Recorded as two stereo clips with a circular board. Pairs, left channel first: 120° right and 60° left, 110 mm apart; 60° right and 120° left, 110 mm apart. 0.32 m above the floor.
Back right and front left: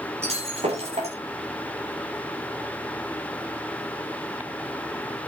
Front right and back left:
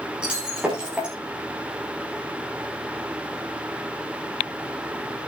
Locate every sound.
0.2 s breaking glass: 40° left, 7.5 m